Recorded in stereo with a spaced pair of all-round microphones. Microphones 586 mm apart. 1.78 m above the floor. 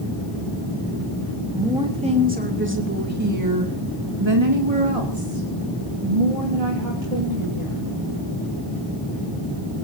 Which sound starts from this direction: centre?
A woman speaking, at 1.5 s.